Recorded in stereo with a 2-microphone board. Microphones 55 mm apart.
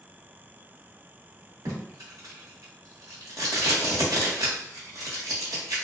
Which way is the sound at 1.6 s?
80° right.